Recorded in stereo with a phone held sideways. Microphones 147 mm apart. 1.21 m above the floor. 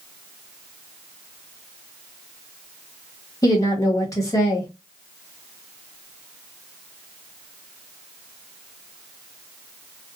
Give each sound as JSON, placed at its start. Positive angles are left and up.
{"t": 3.4, "sound": "a woman speaking", "side_deg": 20, "distance_m": 1.3}